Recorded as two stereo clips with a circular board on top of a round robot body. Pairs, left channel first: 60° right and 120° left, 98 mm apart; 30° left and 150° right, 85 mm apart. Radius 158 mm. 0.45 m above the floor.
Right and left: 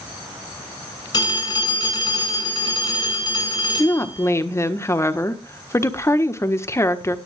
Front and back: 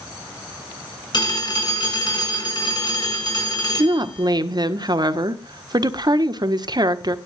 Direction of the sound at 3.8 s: 120° right.